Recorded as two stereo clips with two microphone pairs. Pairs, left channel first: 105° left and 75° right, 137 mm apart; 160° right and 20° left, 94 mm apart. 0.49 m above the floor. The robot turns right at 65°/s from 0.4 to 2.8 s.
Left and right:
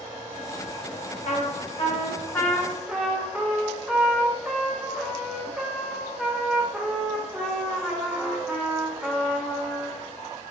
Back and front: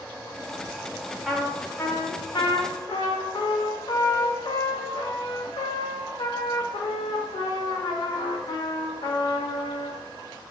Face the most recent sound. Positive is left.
turn(degrees=-155)